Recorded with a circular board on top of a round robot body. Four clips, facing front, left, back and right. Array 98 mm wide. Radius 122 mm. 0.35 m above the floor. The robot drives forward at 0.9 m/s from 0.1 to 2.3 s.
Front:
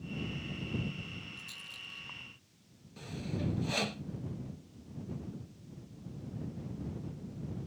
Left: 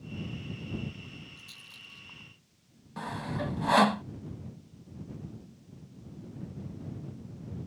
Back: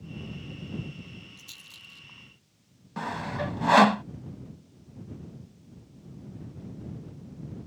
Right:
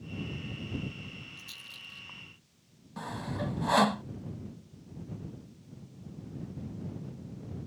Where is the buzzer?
I don't hear a buzzer.